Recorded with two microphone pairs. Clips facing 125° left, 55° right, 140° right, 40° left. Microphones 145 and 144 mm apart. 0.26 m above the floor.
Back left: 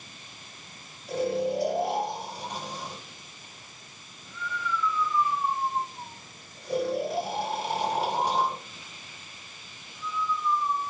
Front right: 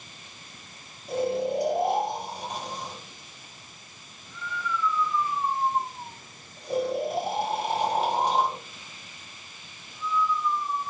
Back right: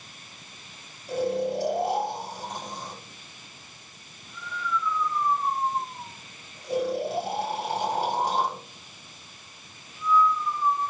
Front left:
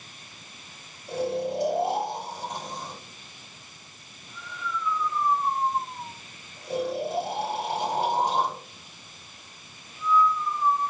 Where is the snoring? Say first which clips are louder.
Front right 1 dB, back right 2 dB; 10° right, 1.7 m.